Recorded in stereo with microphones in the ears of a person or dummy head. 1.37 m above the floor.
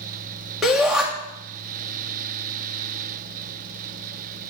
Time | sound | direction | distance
0.6 | a shout | 5° left (ahead or behind) | 3 m